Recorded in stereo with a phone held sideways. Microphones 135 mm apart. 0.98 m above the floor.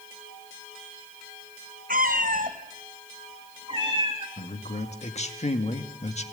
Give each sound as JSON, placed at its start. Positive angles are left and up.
{"t": 1.9, "sound": "a cat meowing", "side_deg": -80, "distance_m": 2.0}
{"t": 4.4, "sound": "a man speaking", "side_deg": 50, "distance_m": 2.0}